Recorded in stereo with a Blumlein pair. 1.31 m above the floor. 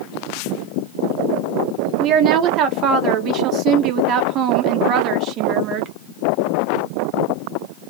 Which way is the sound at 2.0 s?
35° right.